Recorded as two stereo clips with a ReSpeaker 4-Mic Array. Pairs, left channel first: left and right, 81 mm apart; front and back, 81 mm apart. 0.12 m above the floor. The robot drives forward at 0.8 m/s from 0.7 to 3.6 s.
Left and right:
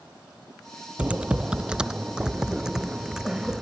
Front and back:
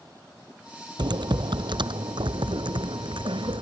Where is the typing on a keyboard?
165° right; by 3.6 s 175° right.